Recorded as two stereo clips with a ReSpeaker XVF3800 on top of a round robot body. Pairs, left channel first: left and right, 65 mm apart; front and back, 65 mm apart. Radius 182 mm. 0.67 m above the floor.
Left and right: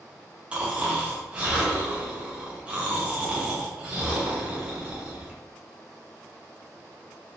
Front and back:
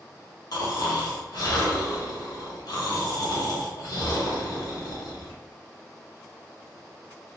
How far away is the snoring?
About 1.4 m.